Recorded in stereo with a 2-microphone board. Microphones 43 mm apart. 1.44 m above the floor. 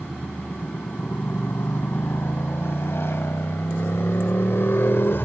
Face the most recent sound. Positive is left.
turn(degrees=65)  # may be behind; listen again after turning